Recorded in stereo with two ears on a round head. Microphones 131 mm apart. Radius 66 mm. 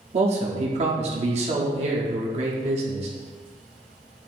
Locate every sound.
0.1 s a man speaking: 45° right (ahead or behind), 1.0 m